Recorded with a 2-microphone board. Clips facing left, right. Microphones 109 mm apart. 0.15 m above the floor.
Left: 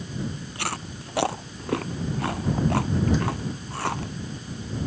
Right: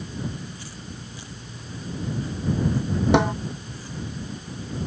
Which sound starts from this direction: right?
A snare drum, at 3.1 s.